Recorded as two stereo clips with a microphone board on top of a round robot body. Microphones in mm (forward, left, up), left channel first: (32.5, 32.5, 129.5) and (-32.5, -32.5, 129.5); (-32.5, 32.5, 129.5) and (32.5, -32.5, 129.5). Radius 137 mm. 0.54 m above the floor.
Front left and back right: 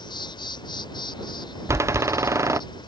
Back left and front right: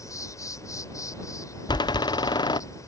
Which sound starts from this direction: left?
An insect, at 0.0 s.